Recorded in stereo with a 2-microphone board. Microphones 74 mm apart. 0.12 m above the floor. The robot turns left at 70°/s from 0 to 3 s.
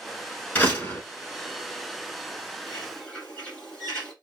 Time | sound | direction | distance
0.6 | a door slam | 20° left (ahead or behind) | 1.1 m
2.7 | a bird | 20° left (ahead or behind) | 1.4 m